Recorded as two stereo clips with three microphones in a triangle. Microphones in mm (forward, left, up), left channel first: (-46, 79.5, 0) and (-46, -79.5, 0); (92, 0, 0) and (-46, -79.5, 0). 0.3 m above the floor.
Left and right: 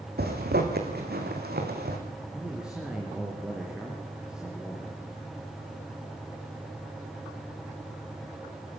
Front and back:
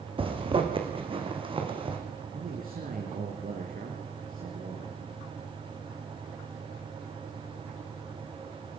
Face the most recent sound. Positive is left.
turn(degrees=-175)